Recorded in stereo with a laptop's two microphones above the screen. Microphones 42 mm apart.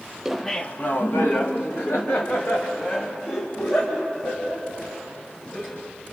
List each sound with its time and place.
0.2 s laughter: 10° right (ahead or behind), 0.6 m; by 5.8 s 75° left (ahead or behind), 7 m